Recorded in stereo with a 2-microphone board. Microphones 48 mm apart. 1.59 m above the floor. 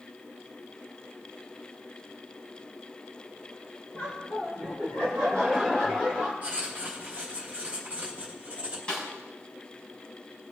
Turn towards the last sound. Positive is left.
turn(degrees=20)  # may be behind; listen again after turning